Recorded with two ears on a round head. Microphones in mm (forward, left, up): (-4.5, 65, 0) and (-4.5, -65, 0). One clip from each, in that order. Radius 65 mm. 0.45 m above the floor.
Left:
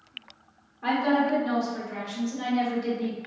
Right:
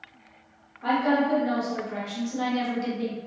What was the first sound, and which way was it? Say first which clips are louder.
A woman speaking: right 1 dB; 35° left (ahead or behind).